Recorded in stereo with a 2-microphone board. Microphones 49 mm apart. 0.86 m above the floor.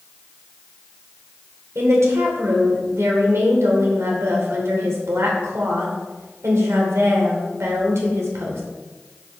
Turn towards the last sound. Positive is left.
turn(degrees=-75)  # may be behind; listen again after turning